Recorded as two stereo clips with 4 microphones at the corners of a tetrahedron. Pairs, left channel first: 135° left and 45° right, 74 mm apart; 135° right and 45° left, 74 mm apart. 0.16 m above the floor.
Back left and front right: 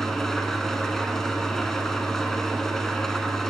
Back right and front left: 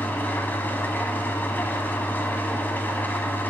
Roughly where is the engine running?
Behind right.